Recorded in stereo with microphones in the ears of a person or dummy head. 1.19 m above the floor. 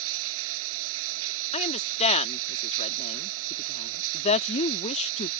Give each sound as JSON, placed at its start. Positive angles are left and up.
{"t": 0.0, "sound": "running water", "side_deg": -75}
{"t": 1.5, "sound": "a woman speaking", "side_deg": 30}